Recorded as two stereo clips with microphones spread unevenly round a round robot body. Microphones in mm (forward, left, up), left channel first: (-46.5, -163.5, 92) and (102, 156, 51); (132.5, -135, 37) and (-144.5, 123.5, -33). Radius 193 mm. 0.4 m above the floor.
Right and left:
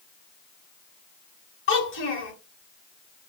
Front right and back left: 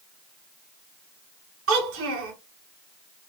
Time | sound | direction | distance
1.7 | a child speaking | 175° right | 1.2 m